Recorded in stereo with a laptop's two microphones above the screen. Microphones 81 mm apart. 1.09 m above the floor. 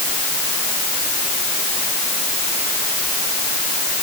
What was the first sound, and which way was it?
Only background noise.